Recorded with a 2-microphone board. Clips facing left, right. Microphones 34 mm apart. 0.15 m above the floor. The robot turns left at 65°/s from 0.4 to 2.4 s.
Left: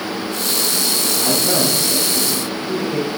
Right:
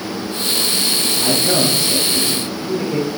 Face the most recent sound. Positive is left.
turn(degrees=-55)